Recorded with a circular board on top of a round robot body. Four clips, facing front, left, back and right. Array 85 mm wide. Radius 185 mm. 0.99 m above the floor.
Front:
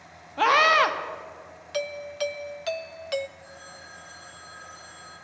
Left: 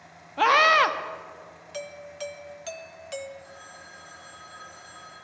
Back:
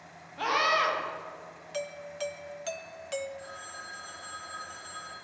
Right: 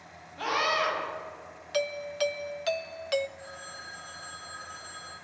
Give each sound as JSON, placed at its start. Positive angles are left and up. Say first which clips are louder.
{"t": 0.4, "sound": "a scream", "louder": "left 9 dB, front 7 dB", "azimuth_deg": 55, "distance_m": 1.5}
{"t": 1.7, "sound": "a doorbell", "louder": "right 8 dB, front 6 dB", "azimuth_deg": -55, "distance_m": 0.6}
{"t": 3.4, "sound": "a phone ringing", "louder": "right 2 dB, back 2 dB", "azimuth_deg": -140, "distance_m": 5.0}